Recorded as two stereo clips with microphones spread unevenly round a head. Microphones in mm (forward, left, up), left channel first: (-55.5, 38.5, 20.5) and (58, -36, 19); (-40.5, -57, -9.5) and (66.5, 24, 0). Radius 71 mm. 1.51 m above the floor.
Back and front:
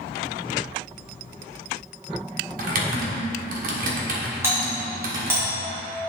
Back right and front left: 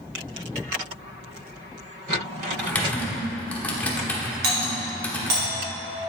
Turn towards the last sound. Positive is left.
turn(degrees=40)